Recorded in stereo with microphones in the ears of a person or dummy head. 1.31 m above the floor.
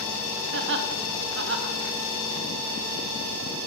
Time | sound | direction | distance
0.5 | laughter | 60° right (ahead or behind) | 1.0 m